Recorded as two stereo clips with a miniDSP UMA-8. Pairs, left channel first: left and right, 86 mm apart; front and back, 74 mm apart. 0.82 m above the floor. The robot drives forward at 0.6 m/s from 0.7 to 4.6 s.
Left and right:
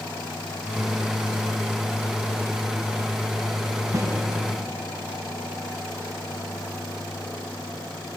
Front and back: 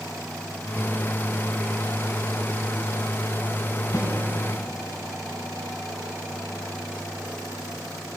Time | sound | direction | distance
3.9 | a snare drum | 35° right | 6.5 m